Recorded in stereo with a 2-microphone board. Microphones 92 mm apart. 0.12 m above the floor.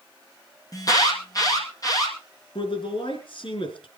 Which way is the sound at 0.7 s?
40° left (ahead or behind).